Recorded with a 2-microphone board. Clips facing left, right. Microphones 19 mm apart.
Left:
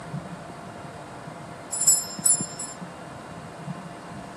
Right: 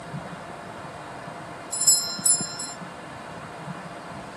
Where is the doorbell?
40° right (ahead or behind).